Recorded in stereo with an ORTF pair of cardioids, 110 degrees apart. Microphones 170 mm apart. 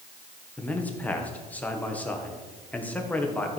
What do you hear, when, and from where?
0.6 s a man speaking: 10° left, 1.5 m